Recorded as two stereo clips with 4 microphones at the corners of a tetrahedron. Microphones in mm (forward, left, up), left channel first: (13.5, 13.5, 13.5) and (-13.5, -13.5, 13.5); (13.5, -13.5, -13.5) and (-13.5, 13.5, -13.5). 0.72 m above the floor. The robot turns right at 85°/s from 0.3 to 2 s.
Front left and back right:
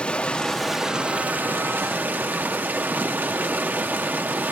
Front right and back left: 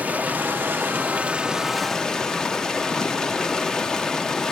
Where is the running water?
100° left, 0.9 m; by 4.5 s 115° right, 0.9 m.